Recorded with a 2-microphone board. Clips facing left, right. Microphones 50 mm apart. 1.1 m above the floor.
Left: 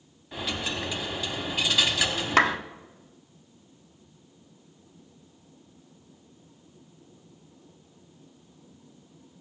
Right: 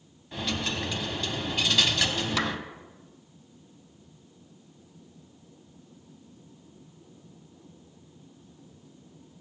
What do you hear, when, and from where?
0.3 s a dropped coin: 5° left (ahead or behind), 1.0 m
2.4 s a clap: 45° left (ahead or behind), 0.5 m